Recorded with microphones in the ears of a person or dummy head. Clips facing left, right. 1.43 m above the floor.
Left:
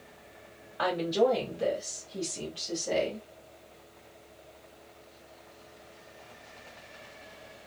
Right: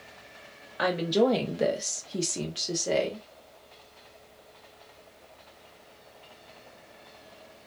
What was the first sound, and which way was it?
A woman speaking, 25° right (ahead or behind).